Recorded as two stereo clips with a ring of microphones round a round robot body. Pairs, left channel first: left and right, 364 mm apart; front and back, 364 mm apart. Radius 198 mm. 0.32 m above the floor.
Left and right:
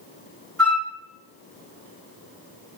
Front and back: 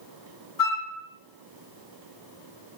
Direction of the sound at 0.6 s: 5° left.